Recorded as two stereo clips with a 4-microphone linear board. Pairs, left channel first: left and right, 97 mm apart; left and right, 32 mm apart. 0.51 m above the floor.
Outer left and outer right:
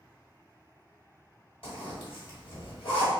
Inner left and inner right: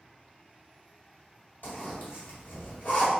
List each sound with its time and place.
1.6 s a zipper: 75° left (ahead or behind), 1.8 m